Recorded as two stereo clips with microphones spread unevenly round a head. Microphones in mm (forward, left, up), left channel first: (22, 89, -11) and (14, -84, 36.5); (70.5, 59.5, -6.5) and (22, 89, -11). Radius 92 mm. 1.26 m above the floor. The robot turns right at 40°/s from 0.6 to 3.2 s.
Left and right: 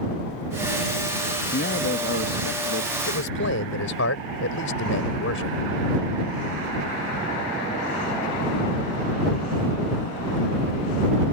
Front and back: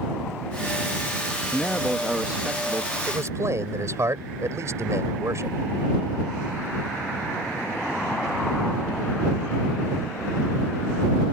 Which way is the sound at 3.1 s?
110° left.